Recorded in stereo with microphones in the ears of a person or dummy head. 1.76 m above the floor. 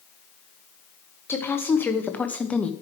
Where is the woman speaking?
10° left (ahead or behind), 1.7 m; by 2.7 s centre (ahead or behind), 1.0 m.